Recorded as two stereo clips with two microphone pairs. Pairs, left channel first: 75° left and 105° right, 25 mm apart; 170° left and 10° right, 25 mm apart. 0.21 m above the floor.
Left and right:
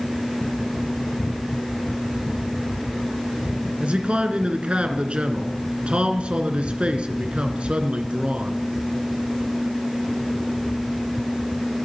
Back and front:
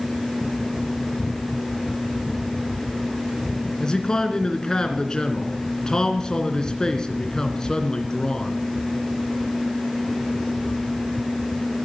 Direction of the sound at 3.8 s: 135° right.